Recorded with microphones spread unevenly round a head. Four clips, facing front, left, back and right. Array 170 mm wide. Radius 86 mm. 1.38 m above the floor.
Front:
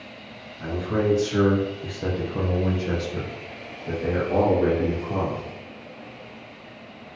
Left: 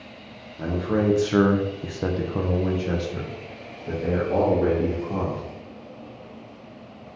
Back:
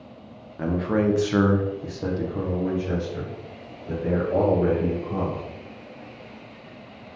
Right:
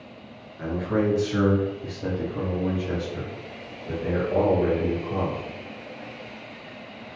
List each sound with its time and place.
0.6 s a man speaking: 150° left, 0.9 m; by 5.4 s 35° left, 2.5 m